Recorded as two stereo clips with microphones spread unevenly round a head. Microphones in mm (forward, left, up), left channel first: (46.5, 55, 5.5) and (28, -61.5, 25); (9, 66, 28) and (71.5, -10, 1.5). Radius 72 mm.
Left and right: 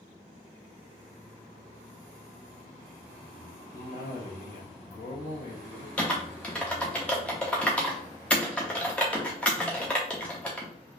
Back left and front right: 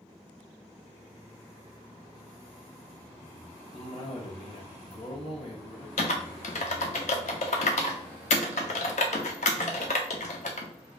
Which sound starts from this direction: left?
A cough, at 3.7 s.